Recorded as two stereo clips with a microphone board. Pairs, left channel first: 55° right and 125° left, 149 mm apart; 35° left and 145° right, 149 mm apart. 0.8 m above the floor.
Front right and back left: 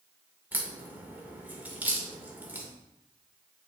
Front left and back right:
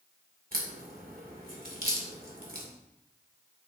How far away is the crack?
About 2.5 m.